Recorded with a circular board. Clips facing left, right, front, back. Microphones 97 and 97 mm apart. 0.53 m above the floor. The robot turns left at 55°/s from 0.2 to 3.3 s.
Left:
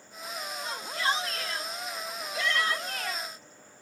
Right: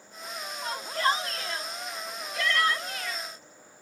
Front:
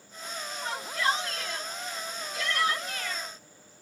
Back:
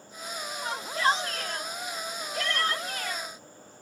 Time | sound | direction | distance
0.6 | a shout | 105° right | 2.5 m